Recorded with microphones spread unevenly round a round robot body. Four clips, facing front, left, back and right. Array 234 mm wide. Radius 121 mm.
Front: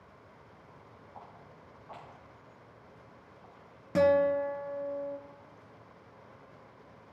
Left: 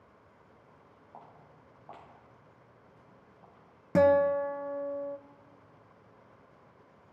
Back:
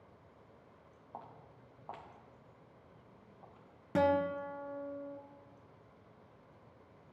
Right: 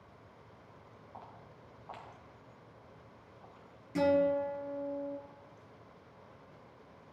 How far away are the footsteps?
About 2.5 m.